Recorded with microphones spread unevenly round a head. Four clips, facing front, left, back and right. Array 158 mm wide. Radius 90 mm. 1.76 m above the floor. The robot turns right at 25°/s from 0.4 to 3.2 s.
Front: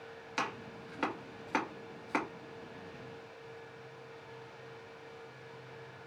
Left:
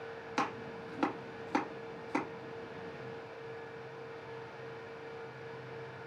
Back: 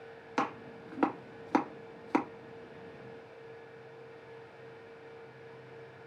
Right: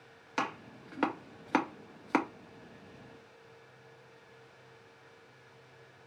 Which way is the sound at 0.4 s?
175° left.